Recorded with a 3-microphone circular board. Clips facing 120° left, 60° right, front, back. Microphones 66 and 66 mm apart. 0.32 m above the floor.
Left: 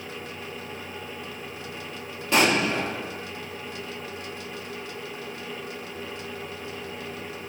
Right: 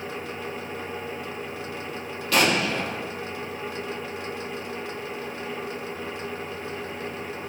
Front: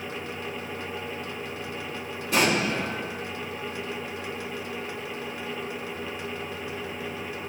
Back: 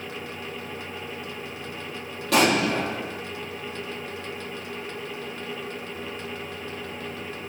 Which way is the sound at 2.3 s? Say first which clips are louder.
Left 1 dB, back 3 dB; 170° right.